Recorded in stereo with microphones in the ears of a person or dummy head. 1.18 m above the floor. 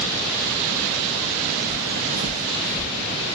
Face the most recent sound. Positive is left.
turn(degrees=0)  # may be behind; listen again after turning